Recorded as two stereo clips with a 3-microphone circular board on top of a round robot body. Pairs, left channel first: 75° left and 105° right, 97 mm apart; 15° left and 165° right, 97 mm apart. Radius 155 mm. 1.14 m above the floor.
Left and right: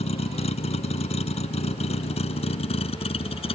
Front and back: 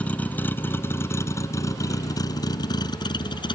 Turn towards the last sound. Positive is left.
turn(degrees=55)